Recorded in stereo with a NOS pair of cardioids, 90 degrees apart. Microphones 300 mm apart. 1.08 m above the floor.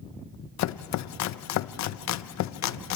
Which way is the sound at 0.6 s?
65° left.